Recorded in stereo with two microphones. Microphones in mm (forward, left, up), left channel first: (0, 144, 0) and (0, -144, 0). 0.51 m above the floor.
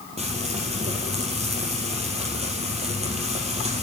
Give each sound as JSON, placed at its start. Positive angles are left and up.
{"t": 0.2, "sound": "frying", "side_deg": -20, "distance_m": 3.5}